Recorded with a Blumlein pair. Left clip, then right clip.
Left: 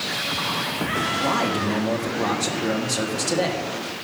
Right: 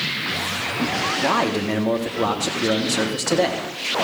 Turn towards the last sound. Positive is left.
turn(degrees=-10)